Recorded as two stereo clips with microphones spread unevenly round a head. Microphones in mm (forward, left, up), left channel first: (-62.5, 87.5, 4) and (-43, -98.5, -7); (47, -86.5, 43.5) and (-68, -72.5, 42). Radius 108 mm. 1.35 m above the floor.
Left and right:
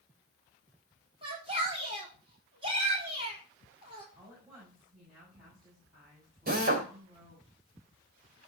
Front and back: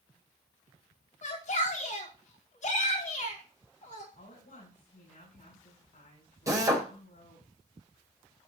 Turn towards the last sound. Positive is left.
turn(degrees=-125)